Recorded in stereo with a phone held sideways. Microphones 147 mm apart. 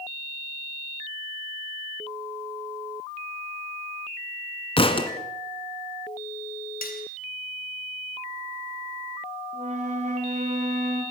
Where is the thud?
40° left (ahead or behind), 1.9 m.